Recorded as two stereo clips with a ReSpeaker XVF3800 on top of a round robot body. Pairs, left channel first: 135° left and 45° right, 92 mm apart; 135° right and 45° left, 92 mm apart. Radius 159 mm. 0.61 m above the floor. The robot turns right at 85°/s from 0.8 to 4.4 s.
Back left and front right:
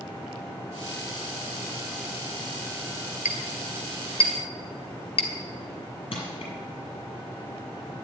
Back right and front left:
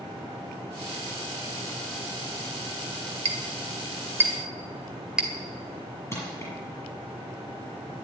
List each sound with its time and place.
3.2 s a clink: 30° left, 2.0 m; by 5.3 s 130° left, 2.0 m
6.1 s crushing: 165° left, 7 m